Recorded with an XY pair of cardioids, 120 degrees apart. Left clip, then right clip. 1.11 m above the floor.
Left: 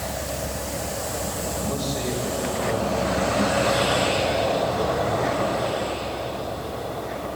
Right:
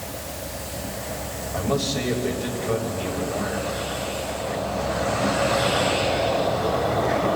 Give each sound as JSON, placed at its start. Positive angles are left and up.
{"t": 1.5, "sound": "a man speaking", "azimuth_deg": -35, "distance_m": 6.5}